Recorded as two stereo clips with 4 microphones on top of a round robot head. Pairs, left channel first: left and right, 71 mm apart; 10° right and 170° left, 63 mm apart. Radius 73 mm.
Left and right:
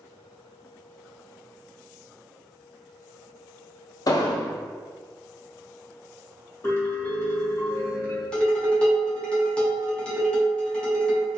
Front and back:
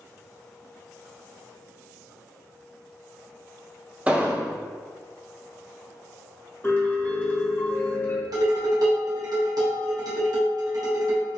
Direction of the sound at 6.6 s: 45° left.